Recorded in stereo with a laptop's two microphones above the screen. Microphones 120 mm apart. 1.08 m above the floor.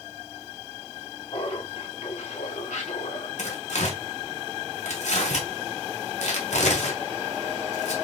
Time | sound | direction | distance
1.3 | laughter | 50° left (ahead or behind) | 3 m
3.4 | tearing paper | 75° left (ahead or behind) | 2.5 m